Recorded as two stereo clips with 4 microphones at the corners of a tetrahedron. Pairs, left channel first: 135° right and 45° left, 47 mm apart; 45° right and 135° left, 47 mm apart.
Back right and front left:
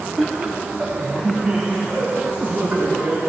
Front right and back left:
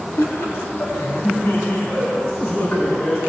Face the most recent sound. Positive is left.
turn(degrees=-15)